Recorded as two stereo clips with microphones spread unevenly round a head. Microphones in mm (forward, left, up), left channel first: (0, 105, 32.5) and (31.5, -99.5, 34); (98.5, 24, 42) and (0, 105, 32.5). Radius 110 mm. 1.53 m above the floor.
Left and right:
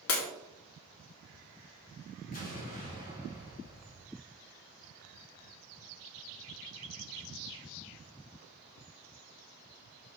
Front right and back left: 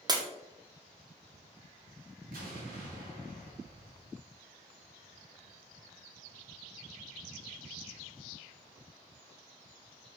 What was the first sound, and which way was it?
Breaking glass, 80° left.